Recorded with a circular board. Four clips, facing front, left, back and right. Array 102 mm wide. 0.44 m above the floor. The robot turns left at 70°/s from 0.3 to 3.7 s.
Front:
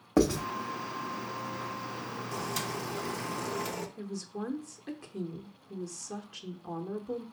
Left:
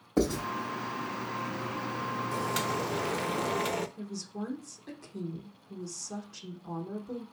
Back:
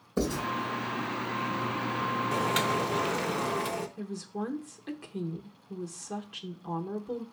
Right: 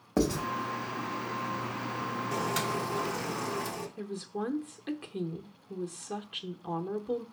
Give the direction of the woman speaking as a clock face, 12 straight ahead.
3 o'clock.